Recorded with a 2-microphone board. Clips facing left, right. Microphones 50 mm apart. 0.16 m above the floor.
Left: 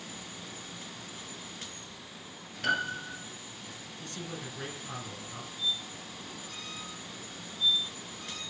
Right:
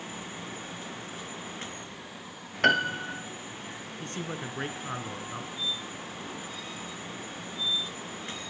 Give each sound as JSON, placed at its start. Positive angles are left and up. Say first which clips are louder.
{"t": 2.6, "sound": "a piano", "louder": "right 6 dB", "side_deg": -55, "distance_m": 1.2}
{"t": 4.0, "sound": "a man speaking", "louder": "right 5 dB", "side_deg": -40, "distance_m": 1.9}
{"t": 5.6, "sound": "a squeak", "louder": "right 1 dB", "side_deg": 65, "distance_m": 4.5}